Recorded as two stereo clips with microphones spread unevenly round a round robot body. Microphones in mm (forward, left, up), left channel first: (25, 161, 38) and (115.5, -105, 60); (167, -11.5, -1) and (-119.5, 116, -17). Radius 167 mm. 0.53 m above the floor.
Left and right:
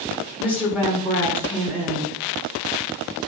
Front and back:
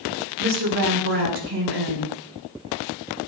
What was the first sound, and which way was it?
A woman speaking, 155° right.